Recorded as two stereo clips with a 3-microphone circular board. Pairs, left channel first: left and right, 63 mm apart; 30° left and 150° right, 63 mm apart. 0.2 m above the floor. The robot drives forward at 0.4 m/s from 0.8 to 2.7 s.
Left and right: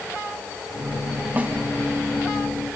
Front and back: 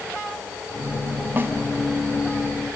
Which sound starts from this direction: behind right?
A snare drum, at 1.4 s.